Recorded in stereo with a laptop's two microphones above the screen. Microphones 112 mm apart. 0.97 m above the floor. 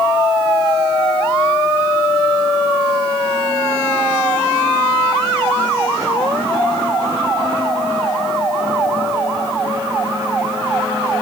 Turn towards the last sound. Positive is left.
No sound to turn to.